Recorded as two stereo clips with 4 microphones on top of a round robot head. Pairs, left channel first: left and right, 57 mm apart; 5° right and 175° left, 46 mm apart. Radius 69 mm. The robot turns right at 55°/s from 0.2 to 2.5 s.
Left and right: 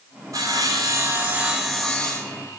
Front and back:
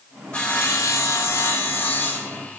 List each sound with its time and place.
0.3 s sawing: 80° right, 0.9 m; by 2.6 s 40° left, 0.9 m